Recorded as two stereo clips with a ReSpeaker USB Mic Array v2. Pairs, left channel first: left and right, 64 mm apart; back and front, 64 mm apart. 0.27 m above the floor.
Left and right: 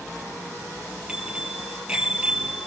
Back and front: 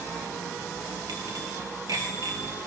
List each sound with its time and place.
1.1 s a bicycle bell: 20° right, 4 m